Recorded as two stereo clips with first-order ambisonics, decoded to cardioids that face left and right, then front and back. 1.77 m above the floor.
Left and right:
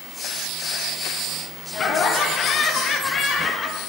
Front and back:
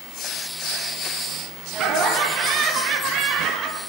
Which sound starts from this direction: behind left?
Laughter, at 1.7 s.